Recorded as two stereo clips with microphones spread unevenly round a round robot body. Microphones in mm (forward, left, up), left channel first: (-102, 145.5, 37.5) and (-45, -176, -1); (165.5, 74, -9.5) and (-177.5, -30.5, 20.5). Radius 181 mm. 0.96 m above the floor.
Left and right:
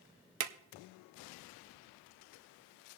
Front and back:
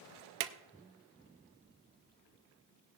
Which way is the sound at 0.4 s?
120° right.